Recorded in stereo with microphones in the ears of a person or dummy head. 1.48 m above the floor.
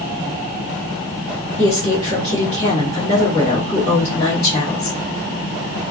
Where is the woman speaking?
30° left (ahead or behind), 1.2 m.